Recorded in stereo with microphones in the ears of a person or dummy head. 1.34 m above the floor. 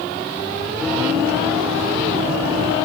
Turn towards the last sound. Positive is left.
turn(degrees=-20)  # may be behind; listen again after turning